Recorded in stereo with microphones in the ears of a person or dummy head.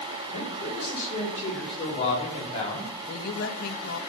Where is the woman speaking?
55° left (ahead or behind), 1.2 m.